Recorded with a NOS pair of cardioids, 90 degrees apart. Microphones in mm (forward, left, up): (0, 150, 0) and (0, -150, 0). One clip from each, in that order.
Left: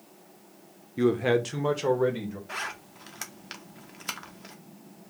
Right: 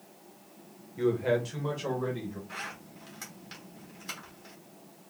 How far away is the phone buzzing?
No phone buzzing in this recording.